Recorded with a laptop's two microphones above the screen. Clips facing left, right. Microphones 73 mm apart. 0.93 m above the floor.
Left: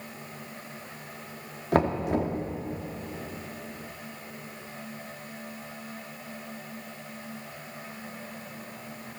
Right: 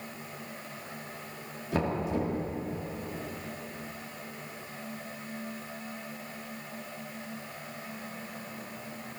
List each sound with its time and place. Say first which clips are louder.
1.7 s knocking: left 5 dB; 60° left (ahead or behind), 1.8 m